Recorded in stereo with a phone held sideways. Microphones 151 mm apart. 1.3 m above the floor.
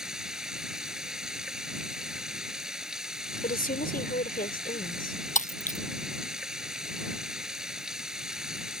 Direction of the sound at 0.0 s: 5° right (ahead or behind).